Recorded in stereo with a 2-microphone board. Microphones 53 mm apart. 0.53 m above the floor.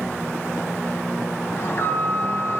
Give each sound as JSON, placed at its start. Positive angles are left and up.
{"t": 1.6, "sound": "an alarm", "side_deg": 45, "distance_m": 4.0}